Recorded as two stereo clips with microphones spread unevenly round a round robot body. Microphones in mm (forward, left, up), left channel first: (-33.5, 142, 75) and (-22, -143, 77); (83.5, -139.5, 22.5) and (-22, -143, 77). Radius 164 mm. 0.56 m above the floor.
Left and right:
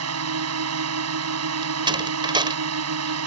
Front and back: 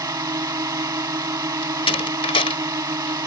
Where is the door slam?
15° right.